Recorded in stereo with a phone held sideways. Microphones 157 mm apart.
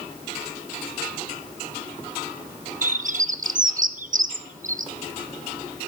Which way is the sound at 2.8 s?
55° right (ahead or behind).